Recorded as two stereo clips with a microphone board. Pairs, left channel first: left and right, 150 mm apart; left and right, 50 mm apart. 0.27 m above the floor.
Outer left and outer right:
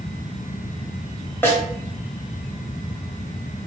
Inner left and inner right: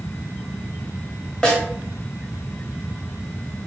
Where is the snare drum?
15° left (ahead or behind), 0.9 m.